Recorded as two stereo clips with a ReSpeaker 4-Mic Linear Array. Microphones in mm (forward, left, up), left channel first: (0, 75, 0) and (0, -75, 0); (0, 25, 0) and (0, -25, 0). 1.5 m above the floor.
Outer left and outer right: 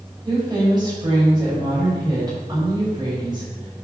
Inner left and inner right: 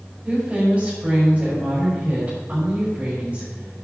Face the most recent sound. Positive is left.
turn(degrees=-25)  # may be behind; listen again after turning